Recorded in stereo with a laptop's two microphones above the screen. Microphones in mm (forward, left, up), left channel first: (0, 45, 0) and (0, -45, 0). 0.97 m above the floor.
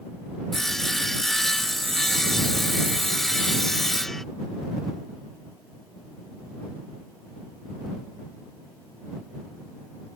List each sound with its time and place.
0.5 s sawing: 5° left (ahead or behind)